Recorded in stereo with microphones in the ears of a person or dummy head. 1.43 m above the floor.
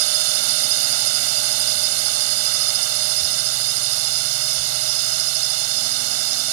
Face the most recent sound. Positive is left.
turn(degrees=-80)